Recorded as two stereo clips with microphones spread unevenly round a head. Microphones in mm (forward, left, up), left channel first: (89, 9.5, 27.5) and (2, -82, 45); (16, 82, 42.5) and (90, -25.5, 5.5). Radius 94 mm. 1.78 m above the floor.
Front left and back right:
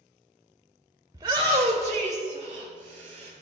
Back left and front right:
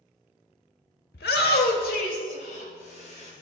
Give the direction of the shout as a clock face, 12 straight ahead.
7 o'clock.